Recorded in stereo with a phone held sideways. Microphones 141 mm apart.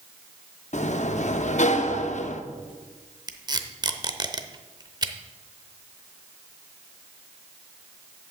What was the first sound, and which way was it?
A sliding door, 55° left (ahead or behind).